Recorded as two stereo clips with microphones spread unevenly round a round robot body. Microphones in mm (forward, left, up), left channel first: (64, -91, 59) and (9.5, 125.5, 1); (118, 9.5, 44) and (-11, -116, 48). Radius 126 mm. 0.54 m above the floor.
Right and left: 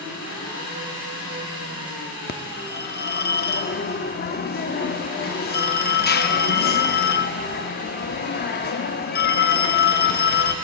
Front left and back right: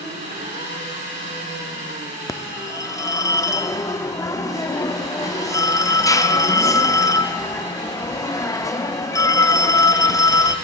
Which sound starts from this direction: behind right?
An engine running, at 0.0 s.